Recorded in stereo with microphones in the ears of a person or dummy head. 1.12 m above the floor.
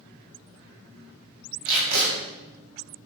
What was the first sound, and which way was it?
Tape being pulled, 75° right (ahead or behind).